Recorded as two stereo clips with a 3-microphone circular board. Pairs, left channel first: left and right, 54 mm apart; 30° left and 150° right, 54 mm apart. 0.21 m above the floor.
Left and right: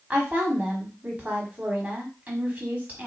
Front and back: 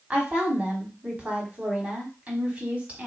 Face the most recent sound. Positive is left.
turn(degrees=-115)